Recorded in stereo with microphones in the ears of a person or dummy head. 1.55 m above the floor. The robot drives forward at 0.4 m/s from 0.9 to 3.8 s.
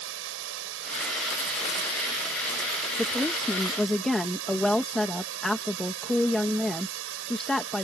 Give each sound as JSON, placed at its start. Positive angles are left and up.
{"t": 0.0, "sound": "running water", "side_deg": -75}
{"t": 3.0, "sound": "a woman speaking", "side_deg": 0}